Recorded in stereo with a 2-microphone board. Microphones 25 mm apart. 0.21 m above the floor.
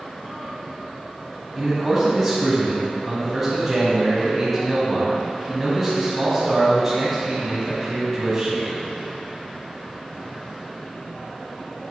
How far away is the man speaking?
About 1.3 m.